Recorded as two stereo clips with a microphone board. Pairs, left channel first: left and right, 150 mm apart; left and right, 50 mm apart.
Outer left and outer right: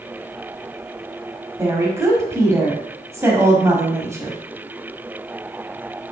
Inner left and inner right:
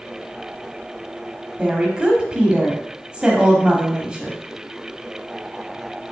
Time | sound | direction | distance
1.6 | a woman speaking | 20° right (ahead or behind) | 1.1 m